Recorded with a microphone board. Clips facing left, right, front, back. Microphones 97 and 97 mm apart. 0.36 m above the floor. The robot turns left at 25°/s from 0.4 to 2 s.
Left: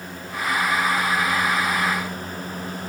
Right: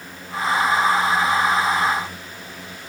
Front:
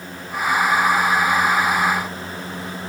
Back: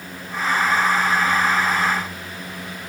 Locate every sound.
Only background noise.